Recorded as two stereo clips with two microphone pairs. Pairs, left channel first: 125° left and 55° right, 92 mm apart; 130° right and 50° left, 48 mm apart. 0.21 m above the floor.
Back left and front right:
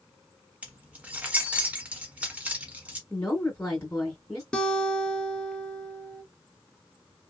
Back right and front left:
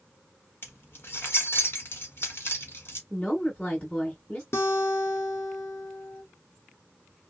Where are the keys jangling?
125° right, 1.1 m.